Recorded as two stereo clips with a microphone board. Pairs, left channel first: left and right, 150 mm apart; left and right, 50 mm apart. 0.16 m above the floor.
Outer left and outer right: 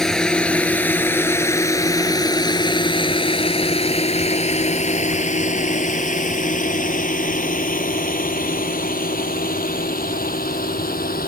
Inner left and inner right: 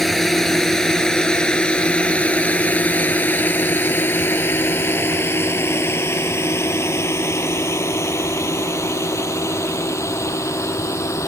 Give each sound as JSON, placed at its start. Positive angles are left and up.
{"t": 0.0, "sound": "a drone", "side_deg": 5}